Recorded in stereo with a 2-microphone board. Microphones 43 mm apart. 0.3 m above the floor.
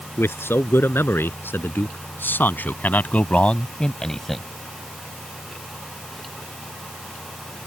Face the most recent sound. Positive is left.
turn(degrees=5)  # may be behind; listen again after turning